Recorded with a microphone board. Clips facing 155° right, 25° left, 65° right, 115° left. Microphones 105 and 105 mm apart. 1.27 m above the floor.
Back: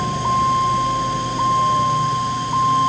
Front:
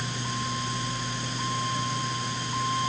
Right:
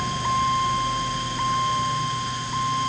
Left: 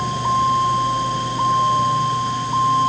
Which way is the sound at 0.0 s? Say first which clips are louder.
Back 15 dB, left 5 dB; straight behind.